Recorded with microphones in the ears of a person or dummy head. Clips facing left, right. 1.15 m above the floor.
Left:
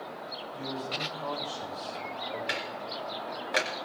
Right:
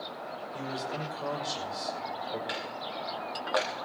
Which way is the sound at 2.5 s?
40° left (ahead or behind).